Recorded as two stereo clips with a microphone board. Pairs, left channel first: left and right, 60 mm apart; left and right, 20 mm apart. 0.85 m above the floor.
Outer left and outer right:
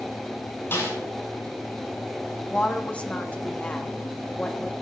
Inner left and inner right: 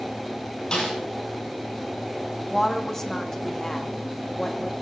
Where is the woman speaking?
20° left (ahead or behind), 1.6 m.